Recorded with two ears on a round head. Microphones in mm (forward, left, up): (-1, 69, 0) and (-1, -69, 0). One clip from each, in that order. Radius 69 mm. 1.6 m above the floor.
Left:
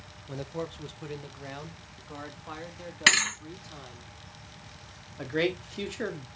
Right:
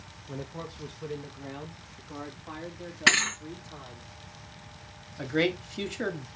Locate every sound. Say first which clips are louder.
0.3 s a man speaking: left 4 dB; 70° left (ahead or behind), 1.1 m; by 4.1 s 85° left, 3.5 m
3.1 s a thud: even; 65° left (ahead or behind), 3 m
5.2 s a man speaking: right 1 dB; centre (ahead or behind), 1.5 m